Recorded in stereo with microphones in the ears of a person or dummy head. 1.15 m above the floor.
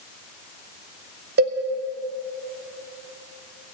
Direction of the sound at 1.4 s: 50° right (ahead or behind).